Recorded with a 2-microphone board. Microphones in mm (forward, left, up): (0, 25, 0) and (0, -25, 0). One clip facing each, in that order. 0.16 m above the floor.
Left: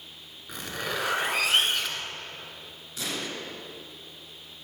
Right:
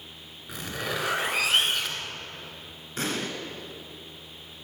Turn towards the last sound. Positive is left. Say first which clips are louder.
# right 4 dB
turn(degrees=-45)  # may be behind; listen again after turning